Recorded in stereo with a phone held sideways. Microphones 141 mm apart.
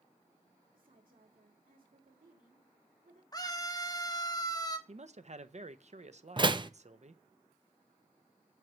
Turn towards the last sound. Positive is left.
turn(degrees=-35)  # may be behind; listen again after turning